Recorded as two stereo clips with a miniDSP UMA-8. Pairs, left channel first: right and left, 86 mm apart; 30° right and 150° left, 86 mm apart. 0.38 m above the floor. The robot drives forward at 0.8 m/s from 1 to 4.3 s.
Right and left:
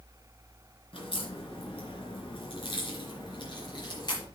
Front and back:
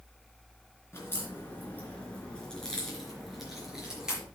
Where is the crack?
90° right, 3.5 m; by 4.3 s 130° right, 4.5 m.